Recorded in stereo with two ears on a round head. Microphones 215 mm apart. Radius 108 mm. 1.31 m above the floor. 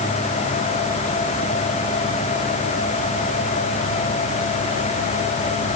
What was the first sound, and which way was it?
Only background noise.